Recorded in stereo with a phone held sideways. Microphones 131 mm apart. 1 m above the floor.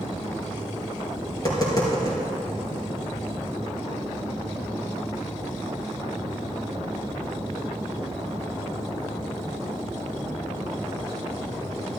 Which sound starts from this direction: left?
Tapping, at 1.3 s.